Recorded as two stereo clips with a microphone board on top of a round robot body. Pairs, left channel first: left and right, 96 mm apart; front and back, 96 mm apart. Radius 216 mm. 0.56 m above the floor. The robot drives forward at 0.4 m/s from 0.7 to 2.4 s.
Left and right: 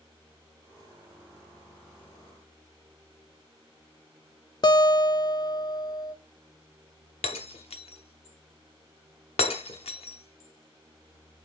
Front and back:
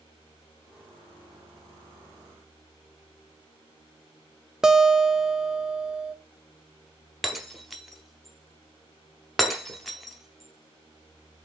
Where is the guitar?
95° left, 0.7 m.